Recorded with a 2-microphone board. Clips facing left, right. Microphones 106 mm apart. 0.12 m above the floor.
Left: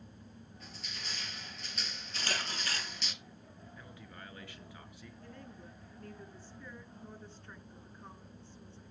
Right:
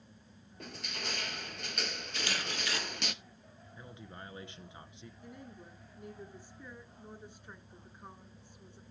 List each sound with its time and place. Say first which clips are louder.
0.6 s crushing: right 8 dB; 60° right (ahead or behind), 0.8 m
2.1 s a camera shutter: even; 40° left (ahead or behind), 3.5 m
3.8 s a man speaking: right 4 dB; 25° right (ahead or behind), 1.4 m
5.2 s a woman speaking: right 1 dB; 15° right (ahead or behind), 1.7 m